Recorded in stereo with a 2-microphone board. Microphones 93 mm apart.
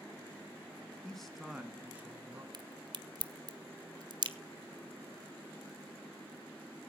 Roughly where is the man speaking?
Centre.